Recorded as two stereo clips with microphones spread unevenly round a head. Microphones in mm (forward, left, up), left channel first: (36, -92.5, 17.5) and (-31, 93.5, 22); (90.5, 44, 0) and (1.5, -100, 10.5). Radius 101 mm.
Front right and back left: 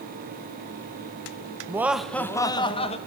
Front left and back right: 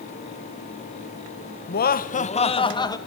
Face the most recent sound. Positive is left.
turn(degrees=-10)